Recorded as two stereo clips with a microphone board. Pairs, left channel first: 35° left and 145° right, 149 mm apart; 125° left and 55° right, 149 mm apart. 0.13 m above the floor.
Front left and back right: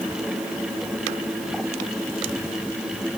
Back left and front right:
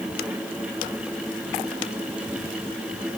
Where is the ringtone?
I don't hear a ringtone.